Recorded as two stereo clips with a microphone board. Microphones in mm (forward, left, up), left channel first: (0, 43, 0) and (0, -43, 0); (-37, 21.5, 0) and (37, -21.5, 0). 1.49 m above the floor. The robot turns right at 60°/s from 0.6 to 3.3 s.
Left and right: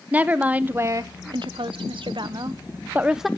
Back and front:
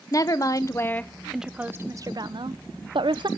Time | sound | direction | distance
0.1 | a woman speaking | 165° right | 0.7 m